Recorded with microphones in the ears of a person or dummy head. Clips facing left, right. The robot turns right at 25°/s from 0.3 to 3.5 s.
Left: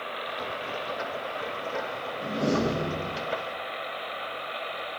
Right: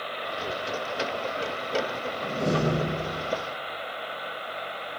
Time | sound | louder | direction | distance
2.2 | a door slam | left 1 dB | 5° left (ahead or behind) | 3 m